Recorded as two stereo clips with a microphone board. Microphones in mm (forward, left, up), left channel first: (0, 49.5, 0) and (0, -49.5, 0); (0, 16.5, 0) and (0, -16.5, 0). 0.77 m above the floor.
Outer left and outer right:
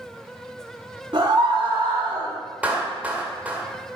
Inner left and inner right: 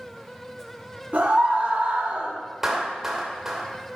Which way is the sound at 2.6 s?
15° right (ahead or behind).